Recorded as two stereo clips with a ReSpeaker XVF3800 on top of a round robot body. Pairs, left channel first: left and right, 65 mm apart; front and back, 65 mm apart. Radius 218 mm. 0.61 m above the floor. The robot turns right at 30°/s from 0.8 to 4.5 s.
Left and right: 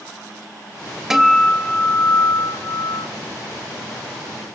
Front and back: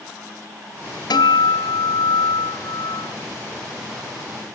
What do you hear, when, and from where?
1.1 s a guitar: 5° right, 2.5 m; by 3.1 s 55° left, 2.5 m